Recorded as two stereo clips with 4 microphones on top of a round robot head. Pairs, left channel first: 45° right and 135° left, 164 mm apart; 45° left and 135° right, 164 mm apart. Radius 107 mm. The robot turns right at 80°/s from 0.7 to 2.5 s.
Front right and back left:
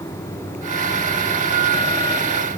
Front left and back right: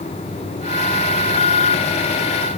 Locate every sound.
Only background noise.